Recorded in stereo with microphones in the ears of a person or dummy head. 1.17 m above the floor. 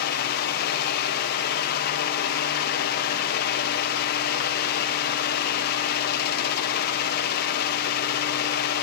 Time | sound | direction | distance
0.0 | a fan | 60° left (ahead or behind) | 0.7 m